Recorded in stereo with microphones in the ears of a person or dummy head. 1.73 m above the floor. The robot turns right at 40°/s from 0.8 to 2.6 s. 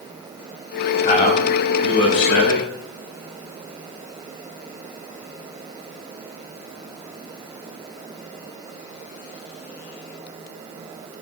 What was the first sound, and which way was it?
A man speaking, 40° left.